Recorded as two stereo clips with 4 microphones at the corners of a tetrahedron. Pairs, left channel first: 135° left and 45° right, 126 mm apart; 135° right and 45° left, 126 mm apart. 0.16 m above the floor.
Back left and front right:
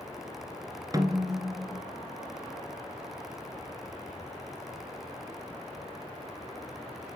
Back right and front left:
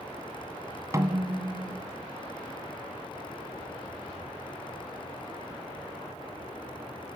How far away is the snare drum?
About 1.6 m.